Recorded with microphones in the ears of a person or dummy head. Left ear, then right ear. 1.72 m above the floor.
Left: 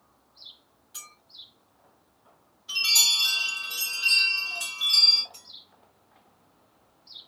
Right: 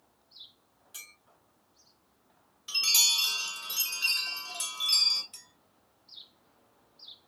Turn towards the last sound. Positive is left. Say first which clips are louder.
# left 4 dB
turn(degrees=-50)  # may be behind; listen again after turning